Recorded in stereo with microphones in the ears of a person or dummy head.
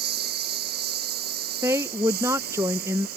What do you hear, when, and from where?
0.0 s a lawn mower: 60° right (ahead or behind); by 3.2 s 55° right (ahead or behind)
1.6 s a woman speaking: 20° right (ahead or behind)